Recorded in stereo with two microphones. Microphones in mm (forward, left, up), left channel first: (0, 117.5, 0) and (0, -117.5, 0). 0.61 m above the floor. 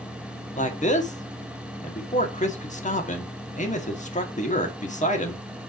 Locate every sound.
0.6 s a man speaking: 30° left (ahead or behind), 1.5 m